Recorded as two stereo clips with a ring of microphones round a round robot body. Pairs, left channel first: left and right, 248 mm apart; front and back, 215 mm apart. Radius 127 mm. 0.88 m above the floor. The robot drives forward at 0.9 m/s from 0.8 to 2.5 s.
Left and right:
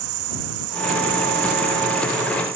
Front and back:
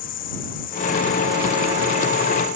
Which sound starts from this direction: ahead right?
An insect, at 0.0 s.